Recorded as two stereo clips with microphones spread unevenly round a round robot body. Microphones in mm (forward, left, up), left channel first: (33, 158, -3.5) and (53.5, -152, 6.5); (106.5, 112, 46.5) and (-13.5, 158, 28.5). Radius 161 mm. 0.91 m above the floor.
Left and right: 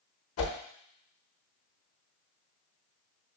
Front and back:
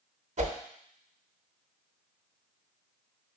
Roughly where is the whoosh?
Behind left.